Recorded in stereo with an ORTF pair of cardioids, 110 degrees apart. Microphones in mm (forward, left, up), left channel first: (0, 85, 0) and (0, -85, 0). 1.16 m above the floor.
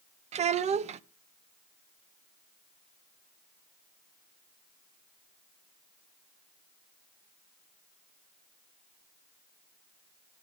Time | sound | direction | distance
0.3 | a child speaking | 40° right | 0.6 m